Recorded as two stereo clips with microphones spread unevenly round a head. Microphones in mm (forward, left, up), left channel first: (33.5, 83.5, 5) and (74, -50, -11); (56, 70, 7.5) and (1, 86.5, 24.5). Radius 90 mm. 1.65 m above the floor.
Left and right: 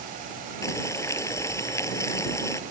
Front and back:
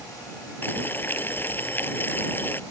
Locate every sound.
0.6 s boiling: 40° left